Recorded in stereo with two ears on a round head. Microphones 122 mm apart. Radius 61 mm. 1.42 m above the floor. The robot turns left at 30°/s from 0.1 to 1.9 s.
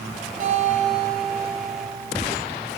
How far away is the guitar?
About 3 m.